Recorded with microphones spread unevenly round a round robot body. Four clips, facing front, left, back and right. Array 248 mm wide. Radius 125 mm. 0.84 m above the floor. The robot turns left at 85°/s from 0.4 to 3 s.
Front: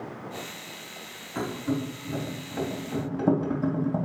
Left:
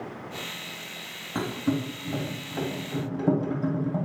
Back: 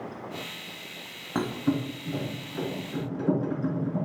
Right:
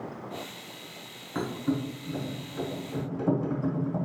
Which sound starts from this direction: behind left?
A thud, at 1.4 s.